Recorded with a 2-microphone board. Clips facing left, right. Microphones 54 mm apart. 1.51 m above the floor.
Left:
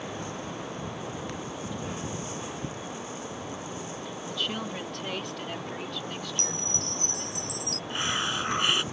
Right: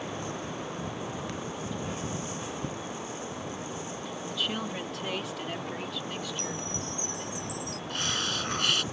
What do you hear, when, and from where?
4.3 s a woman speaking: centre (ahead or behind); by 7.2 s 5° right (ahead or behind)
6.2 s a chime: 65° left (ahead or behind)
7.9 s a hiss: 25° left (ahead or behind)